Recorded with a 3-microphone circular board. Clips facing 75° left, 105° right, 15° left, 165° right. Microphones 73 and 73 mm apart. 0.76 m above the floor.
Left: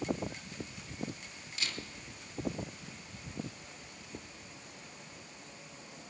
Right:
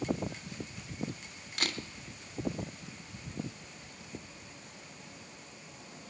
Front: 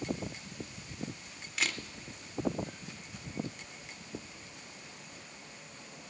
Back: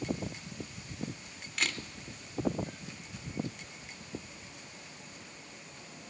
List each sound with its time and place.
1.6 s a camera shutter: 75° right, 1.0 m